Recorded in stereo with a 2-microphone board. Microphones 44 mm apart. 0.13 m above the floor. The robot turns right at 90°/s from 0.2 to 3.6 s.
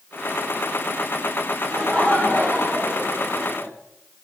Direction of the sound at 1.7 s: Straight ahead.